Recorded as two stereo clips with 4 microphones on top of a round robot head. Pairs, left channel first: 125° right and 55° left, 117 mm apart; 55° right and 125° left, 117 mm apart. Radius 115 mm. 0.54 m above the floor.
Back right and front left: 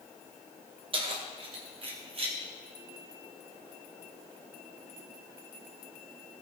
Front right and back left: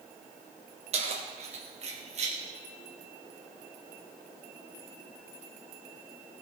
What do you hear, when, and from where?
0.9 s keys jangling: 100° left, 2 m; by 2.4 s 95° left, 3 m